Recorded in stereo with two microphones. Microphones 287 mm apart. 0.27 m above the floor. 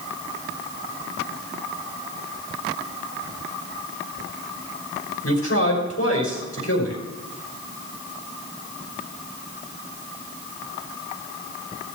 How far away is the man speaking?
About 5 m.